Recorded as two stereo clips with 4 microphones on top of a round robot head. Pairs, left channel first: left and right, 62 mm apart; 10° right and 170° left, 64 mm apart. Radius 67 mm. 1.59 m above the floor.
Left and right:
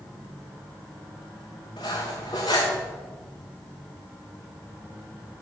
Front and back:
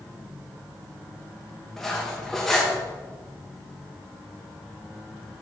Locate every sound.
1.8 s cutlery clinking: 75° left, 0.9 m